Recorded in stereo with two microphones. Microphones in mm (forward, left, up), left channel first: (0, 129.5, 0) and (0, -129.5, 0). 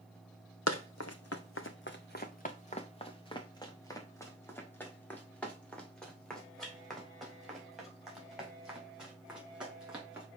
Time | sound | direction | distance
0.7 | running footsteps | 80° left | 0.7 m